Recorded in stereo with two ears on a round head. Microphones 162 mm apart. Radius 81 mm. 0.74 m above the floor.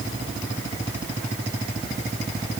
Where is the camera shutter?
I don't hear a camera shutter.